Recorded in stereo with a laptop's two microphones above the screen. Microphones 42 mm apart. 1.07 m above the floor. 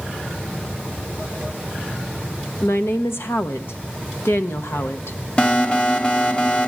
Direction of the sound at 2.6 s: 75° left (ahead or behind).